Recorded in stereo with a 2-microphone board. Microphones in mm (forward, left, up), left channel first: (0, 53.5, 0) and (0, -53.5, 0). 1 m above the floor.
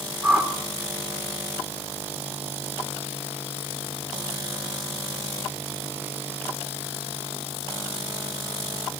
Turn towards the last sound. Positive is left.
turn(degrees=-15)  # may be behind; listen again after turning